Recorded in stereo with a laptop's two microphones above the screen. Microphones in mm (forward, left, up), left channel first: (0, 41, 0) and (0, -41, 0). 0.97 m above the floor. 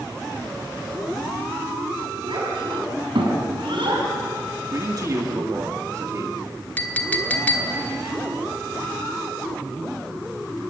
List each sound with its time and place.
2.2 s a child speaking: 80° right, 5 m
4.7 s a man speaking: 40° right (ahead or behind), 1.6 m
6.8 s a clink: 20° left (ahead or behind), 1.2 m